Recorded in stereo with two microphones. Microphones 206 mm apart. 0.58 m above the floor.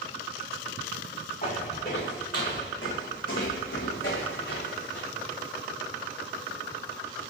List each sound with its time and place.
1.4 s footsteps: 50° left (ahead or behind), 2.5 m; by 5.1 s 65° left (ahead or behind), 2 m